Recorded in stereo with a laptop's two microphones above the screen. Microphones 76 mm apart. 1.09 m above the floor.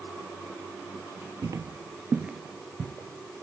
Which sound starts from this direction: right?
Footsteps, at 1.4 s.